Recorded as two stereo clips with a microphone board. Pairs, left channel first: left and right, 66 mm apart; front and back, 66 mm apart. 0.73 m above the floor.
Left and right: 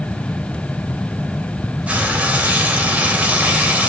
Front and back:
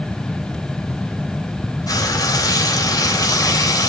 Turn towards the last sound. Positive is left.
turn(degrees=-20)